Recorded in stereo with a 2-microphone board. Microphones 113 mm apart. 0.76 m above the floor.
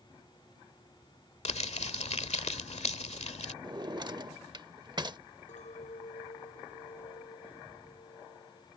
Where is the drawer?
40° right (ahead or behind).